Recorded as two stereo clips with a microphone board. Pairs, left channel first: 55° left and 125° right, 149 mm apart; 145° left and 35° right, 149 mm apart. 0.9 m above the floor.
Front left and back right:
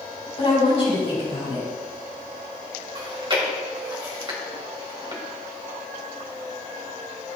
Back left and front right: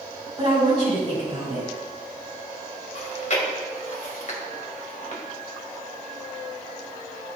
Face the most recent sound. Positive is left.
turn(degrees=180)